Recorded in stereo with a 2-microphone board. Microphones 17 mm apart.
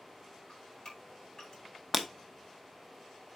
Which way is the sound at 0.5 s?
50° left (ahead or behind).